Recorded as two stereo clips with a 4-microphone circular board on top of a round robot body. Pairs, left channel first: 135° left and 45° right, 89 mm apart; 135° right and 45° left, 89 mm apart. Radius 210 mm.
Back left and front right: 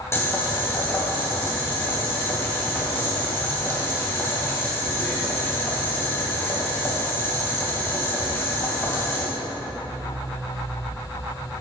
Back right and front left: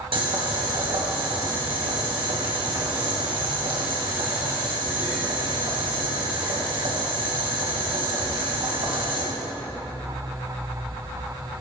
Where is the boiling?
75° left, 2.5 m.